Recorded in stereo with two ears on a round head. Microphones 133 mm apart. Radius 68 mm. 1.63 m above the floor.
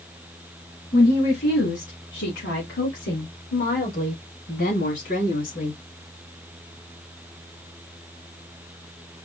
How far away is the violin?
I don't hear a violin.